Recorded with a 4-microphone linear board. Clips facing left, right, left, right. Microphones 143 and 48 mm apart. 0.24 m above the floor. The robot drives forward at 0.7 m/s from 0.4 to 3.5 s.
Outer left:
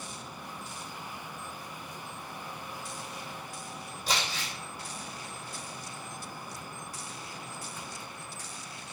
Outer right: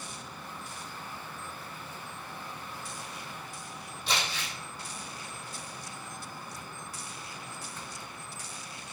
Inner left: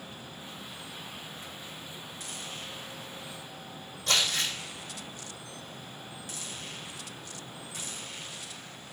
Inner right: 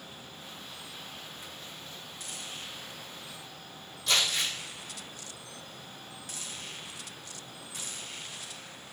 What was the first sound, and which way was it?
Crumpling, 40° left (ahead or behind).